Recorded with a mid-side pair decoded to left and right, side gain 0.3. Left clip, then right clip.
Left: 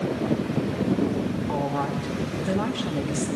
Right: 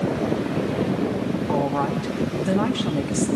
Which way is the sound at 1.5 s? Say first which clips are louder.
Right 4 dB; 40° right.